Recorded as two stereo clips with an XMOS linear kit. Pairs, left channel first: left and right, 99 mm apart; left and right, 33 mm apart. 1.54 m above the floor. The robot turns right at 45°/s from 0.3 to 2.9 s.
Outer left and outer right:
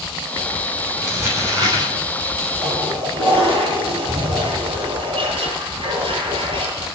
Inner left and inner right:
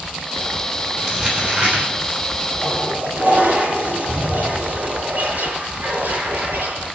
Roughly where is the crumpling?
Behind.